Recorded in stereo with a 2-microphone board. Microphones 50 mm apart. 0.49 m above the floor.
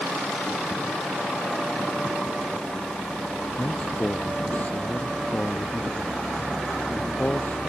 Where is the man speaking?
30° left (ahead or behind).